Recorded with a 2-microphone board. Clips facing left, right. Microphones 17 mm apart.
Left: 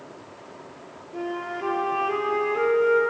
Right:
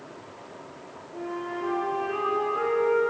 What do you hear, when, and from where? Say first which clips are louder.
1.1 s a flute: left 2 dB; 55° left (ahead or behind), 2.5 m